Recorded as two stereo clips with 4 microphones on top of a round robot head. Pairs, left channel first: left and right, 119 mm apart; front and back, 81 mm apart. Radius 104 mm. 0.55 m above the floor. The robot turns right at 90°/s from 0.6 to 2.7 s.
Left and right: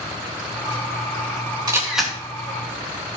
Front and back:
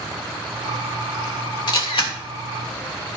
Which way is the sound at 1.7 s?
30° right.